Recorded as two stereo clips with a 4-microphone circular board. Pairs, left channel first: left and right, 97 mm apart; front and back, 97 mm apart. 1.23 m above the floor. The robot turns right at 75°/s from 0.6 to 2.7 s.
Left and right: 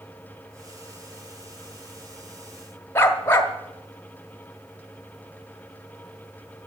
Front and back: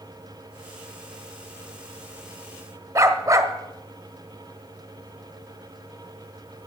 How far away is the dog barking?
About 1.1 m.